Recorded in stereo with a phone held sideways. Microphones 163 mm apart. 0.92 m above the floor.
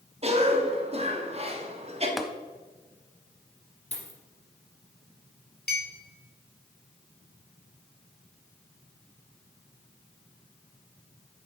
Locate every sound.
0.2 s a cough: 40° right (ahead or behind), 1.7 m
2.2 s tapping: centre (ahead or behind), 0.8 m
3.9 s a dropped coin: 40° left (ahead or behind), 2.5 m
5.7 s a clink: 75° left (ahead or behind), 2 m